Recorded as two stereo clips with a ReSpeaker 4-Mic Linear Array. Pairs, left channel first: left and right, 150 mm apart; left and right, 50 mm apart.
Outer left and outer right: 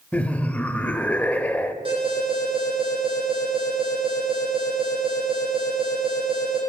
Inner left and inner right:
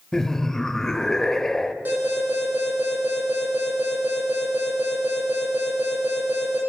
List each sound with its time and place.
0.1 s laughter: 10° left (ahead or behind), 1.1 m
1.9 s an alarm: 35° right (ahead or behind), 8.5 m